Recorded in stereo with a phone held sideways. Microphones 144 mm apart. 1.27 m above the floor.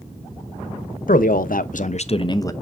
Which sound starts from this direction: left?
A man speaking, at 1.1 s.